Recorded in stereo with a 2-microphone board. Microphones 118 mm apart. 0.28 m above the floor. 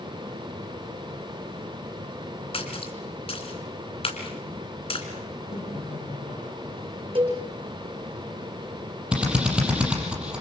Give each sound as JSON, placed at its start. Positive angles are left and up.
{"t": 2.5, "sound": "a splash", "side_deg": 55, "distance_m": 3.0}
{"t": 5.5, "sound": "laughter", "side_deg": 55, "distance_m": 8.5}
{"t": 7.2, "sound": "a cowbell", "side_deg": -45, "distance_m": 5.0}
{"t": 9.1, "sound": "a drill", "side_deg": -10, "distance_m": 6.0}